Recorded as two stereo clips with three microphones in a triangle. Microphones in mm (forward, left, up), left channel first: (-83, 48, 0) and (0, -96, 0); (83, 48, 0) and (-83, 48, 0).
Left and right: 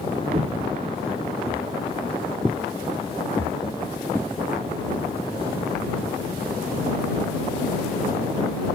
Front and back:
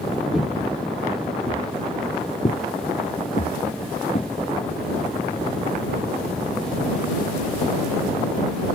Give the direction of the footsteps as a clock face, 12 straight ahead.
3 o'clock.